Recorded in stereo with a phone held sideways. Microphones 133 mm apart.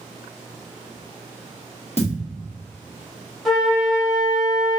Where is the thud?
55° left (ahead or behind), 0.8 m.